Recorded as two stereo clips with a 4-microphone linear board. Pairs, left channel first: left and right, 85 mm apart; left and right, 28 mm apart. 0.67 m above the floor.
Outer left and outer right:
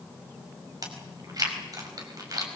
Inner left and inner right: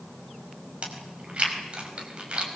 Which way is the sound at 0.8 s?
45° right (ahead or behind).